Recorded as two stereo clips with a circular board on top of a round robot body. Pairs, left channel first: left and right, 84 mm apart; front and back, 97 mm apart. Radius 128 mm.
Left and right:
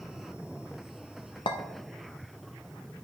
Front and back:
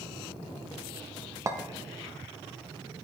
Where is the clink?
120° left, 0.7 m.